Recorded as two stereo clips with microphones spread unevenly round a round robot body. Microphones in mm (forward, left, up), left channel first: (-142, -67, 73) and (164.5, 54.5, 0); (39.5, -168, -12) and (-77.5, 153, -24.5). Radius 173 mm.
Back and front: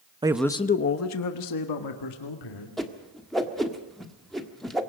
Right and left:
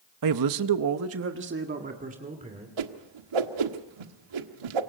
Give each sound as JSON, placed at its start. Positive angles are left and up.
{"t": 0.2, "sound": "a man speaking", "azimuth_deg": 85, "distance_m": 0.9}
{"t": 2.8, "sound": "a whoosh", "azimuth_deg": 110, "distance_m": 1.5}